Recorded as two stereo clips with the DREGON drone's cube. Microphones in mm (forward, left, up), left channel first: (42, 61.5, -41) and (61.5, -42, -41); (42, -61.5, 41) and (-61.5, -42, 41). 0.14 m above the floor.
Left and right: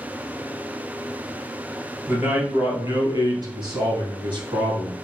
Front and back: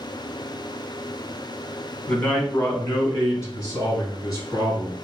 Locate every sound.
2.1 s a man speaking: 80° right, 1.3 m; by 5.0 s 60° right, 2.5 m